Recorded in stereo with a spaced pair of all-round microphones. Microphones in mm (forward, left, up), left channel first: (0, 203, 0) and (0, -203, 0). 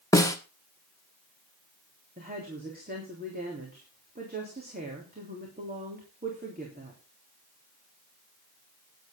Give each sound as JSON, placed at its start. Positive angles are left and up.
{"t": 0.1, "sound": "a snare drum", "side_deg": 10, "distance_m": 1.3}
{"t": 2.2, "sound": "a woman speaking", "side_deg": -20, "distance_m": 3.5}